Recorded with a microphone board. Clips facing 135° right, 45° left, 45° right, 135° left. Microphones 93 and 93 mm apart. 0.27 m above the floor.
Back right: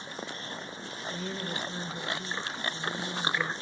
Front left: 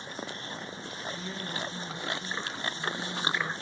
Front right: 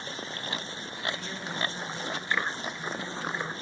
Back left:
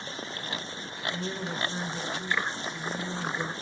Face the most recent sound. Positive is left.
turn(degrees=-170)